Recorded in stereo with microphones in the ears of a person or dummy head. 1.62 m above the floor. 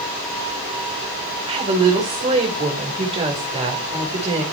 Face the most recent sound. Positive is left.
turn(degrees=-30)  # may be behind; listen again after turning